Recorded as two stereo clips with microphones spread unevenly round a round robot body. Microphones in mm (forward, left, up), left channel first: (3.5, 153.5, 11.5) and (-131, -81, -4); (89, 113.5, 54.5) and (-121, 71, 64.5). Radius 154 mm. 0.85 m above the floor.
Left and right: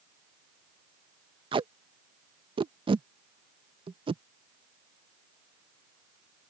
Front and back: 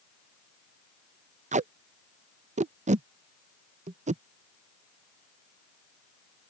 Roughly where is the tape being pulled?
Behind.